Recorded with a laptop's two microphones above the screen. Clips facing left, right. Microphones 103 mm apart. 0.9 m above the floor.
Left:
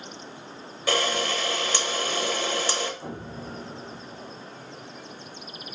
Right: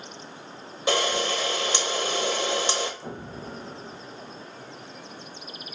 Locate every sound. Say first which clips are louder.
0.9 s a camera shutter: right 1 dB; 20° right (ahead or behind), 0.9 m
3.0 s an explosion: left 1 dB; 40° left (ahead or behind), 0.9 m